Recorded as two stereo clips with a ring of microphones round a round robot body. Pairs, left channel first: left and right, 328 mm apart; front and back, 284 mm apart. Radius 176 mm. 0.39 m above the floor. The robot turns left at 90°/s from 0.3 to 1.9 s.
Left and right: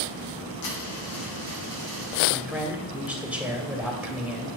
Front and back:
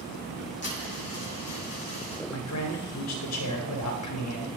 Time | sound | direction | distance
0.6 | a dropped coin | 50° left | 5 m
2.3 | a man speaking | 5° right | 2 m